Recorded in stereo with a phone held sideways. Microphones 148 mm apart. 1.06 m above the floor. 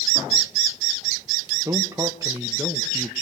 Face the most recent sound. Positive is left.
turn(degrees=-20)  # may be behind; listen again after turning